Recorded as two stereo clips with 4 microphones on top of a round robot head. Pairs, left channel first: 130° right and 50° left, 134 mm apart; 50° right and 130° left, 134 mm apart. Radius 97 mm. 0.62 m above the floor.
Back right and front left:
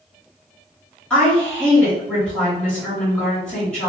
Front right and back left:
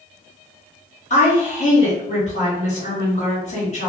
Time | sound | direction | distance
1.1 | a woman speaking | 50° right | 1.9 m